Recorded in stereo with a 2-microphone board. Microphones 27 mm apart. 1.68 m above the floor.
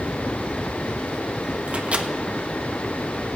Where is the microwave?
60° right (ahead or behind), 1.4 m.